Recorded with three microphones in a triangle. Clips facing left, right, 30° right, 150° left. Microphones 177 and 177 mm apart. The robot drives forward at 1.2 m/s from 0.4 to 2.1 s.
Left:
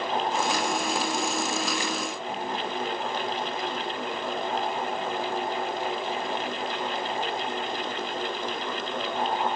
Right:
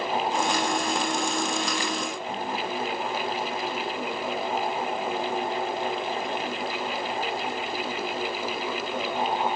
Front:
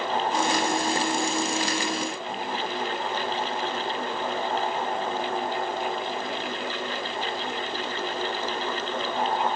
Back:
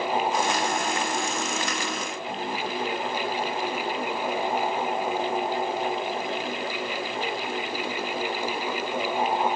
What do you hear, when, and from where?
Only background noise.